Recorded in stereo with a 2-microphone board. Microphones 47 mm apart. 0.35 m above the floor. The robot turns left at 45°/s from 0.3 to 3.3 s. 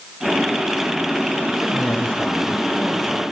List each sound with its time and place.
1.6 s a man speaking: 65° left, 1.9 m; by 3.2 s 5° right, 1.9 m